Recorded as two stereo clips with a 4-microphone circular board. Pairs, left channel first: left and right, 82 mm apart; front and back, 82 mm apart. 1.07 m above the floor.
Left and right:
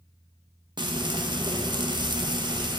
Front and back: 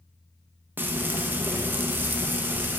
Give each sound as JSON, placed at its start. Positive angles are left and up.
{"t": 0.8, "sound": "frying", "azimuth_deg": -115, "distance_m": 0.7}